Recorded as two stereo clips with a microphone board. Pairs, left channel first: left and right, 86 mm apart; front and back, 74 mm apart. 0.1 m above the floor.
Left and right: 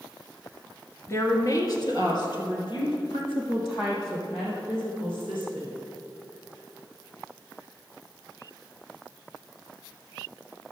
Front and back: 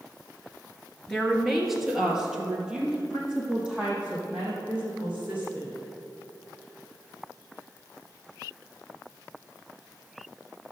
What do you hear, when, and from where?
1.1 s a woman speaking: 75° left, 1.4 m; by 5.7 s 110° left, 5.5 m